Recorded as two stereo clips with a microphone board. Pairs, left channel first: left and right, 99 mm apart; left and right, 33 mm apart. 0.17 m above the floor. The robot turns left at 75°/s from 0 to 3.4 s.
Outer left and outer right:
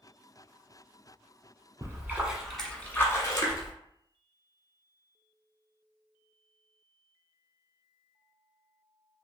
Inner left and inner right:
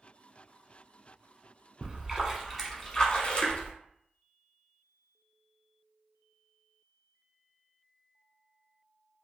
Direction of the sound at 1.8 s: 130° right.